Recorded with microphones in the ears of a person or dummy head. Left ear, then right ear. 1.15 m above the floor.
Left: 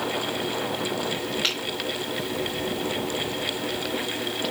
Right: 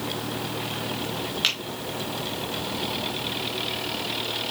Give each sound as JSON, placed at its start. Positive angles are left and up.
{"t": 1.4, "sound": "a finger snap", "side_deg": -10, "distance_m": 3.0}